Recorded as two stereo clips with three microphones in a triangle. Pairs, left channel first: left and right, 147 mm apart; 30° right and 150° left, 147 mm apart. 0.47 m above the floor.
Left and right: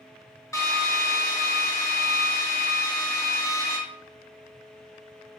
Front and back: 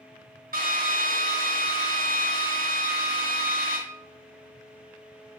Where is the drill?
160° left, 1.9 m.